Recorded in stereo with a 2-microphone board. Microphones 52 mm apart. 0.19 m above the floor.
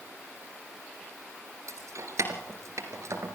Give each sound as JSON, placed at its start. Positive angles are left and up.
{"t": 1.7, "sound": "keys jangling", "side_deg": -70, "distance_m": 2.0}